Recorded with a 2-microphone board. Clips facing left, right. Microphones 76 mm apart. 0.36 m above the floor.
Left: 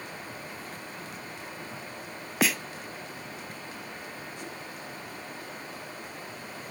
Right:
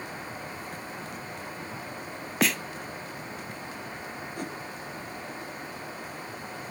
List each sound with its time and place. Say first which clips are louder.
2.4 s a snare drum: right 1 dB; centre (ahead or behind), 0.6 m
4.3 s a whoosh: right 5 dB; 50° right (ahead or behind), 2 m